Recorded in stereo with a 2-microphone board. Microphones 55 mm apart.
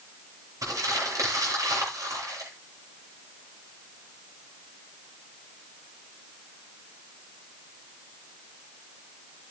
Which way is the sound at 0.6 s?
80° right.